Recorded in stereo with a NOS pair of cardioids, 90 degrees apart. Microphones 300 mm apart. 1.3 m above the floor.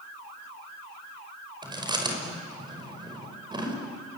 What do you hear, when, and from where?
1.6 s chewing: 15° right, 5 m